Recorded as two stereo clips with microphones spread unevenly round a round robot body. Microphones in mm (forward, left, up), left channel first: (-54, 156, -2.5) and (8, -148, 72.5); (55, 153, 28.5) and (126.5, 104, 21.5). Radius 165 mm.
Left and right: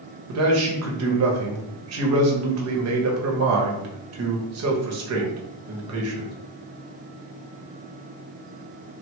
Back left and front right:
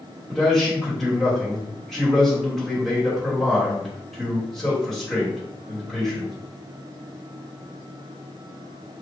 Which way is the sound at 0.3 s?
125° right.